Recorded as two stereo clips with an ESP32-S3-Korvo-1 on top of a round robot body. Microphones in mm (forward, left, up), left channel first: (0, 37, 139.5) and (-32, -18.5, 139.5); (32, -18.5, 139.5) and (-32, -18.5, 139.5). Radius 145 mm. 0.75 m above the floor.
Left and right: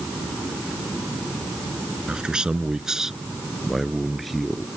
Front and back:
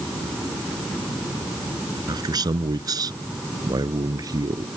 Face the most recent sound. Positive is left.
turn(degrees=145)